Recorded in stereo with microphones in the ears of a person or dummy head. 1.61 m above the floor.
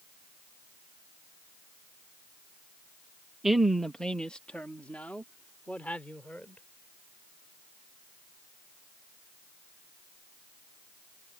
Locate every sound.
3.4 s a woman speaking: centre (ahead or behind); by 6.6 s 5° left (ahead or behind)